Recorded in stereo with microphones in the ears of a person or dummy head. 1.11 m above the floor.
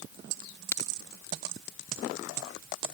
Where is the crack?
15° left (ahead or behind).